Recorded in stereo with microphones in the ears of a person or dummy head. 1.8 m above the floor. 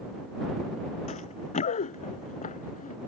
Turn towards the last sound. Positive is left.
turn(degrees=40)  # may be behind; listen again after turning